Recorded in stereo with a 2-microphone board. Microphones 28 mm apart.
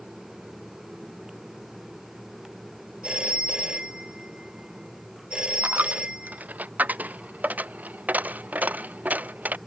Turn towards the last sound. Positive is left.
turn(degrees=-85)